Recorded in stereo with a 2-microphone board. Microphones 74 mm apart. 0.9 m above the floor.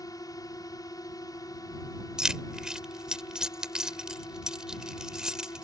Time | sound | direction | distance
0.0 | a drone | 55° left (ahead or behind) | ?
2.2 | keys jangling | 10° right (ahead or behind) | ?